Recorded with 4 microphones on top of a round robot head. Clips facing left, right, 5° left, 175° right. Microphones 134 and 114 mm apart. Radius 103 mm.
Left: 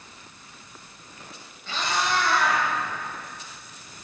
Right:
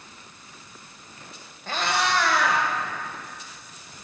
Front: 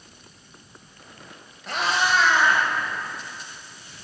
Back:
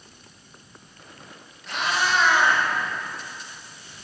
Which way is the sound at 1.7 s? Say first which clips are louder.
Right 2 dB, front 2 dB; 45° right.